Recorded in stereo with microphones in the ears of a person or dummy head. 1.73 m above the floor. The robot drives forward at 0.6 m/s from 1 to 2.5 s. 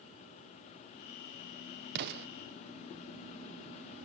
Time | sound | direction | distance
1.9 | an explosion | 55° right (ahead or behind) | 0.9 m